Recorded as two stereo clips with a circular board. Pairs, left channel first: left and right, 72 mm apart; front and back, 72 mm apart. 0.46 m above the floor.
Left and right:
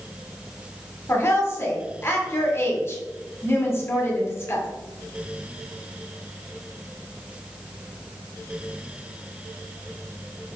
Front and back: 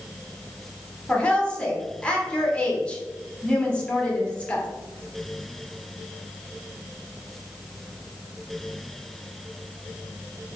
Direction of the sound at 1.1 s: 65° left.